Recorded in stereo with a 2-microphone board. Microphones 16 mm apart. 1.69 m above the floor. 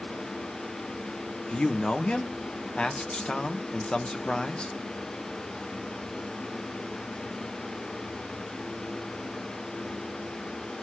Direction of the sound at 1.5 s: 65° left (ahead or behind).